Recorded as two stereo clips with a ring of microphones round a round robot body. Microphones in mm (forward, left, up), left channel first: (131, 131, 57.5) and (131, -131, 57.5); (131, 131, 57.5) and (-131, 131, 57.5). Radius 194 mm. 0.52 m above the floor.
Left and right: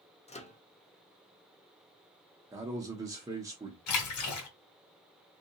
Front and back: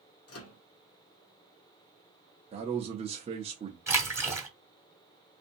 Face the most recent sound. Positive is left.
turn(degrees=100)